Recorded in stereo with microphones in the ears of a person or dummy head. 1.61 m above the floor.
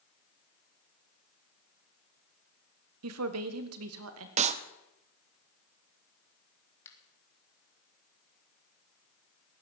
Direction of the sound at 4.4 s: 35° right (ahead or behind).